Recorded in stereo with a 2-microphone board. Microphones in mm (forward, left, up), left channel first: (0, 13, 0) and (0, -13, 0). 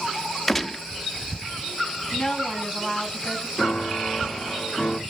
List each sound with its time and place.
0.5 s a gunshot: 10° left (ahead or behind), 0.6 m
2.1 s a woman speaking: 30° left (ahead or behind), 3.5 m
3.6 s a piano: 50° left (ahead or behind), 3 m